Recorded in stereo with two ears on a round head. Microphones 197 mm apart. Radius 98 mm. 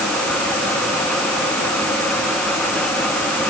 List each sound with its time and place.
Only background noise.